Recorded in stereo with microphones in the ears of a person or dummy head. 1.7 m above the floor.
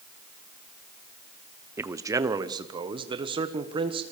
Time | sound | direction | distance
1.8 | a man speaking | 15° right (ahead or behind) | 0.8 m